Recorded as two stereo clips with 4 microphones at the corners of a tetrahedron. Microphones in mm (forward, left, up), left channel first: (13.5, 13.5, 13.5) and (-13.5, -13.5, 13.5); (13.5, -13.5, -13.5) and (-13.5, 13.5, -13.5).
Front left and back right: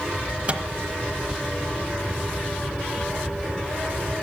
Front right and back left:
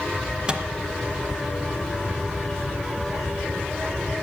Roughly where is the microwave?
Behind.